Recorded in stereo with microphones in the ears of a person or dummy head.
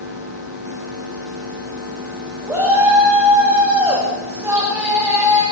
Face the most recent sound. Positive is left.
turn(degrees=-15)  # may be behind; listen again after turning